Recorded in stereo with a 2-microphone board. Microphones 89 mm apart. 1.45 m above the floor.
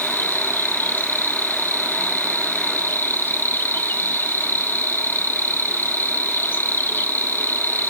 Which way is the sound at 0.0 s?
25° left (ahead or behind).